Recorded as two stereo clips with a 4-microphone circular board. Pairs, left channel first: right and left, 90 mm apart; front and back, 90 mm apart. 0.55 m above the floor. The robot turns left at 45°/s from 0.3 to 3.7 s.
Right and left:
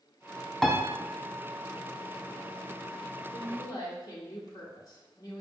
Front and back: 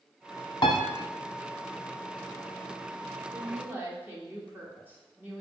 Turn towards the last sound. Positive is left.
turn(degrees=-120)